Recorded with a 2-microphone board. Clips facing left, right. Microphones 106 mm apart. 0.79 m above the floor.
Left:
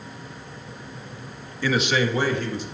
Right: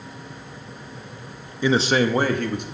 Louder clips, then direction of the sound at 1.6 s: Right 3 dB; 20° right (ahead or behind).